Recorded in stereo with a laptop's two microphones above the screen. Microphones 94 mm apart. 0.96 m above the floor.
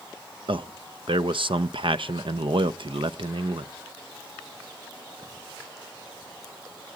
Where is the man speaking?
65° right (ahead or behind), 0.6 m.